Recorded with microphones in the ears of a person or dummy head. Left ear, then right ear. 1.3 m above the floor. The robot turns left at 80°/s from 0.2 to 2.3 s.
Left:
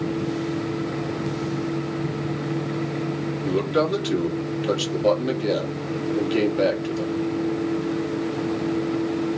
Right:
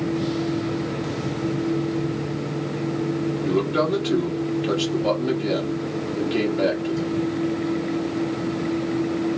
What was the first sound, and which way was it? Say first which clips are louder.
A man speaking: left 1 dB; 5° left (ahead or behind).